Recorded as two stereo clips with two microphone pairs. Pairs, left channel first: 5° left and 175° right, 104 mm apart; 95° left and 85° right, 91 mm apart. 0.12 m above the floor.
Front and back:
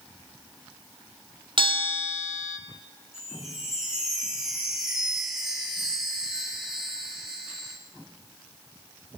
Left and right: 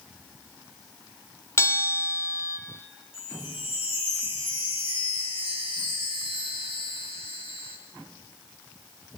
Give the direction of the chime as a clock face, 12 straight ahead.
9 o'clock.